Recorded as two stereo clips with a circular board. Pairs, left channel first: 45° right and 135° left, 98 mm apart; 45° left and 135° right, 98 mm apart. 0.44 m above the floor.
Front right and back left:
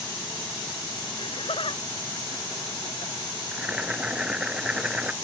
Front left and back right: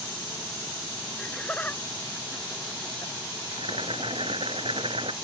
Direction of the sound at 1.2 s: 35° right.